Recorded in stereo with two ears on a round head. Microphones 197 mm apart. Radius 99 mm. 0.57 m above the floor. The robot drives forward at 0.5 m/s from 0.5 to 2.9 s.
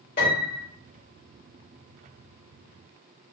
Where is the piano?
40° left (ahead or behind), 1.5 m.